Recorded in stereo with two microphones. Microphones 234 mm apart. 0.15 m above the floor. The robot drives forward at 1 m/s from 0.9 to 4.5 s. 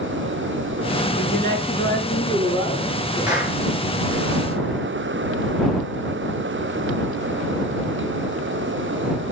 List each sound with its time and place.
1.2 s a woman speaking: 20° left (ahead or behind), 2.5 m; by 3.6 s 10° left (ahead or behind), 4.5 m
3.3 s a clap: 5° right (ahead or behind), 9 m